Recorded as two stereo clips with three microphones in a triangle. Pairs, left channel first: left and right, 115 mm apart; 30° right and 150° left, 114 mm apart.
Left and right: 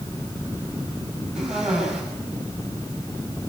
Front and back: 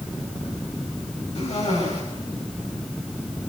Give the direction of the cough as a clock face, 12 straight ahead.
12 o'clock.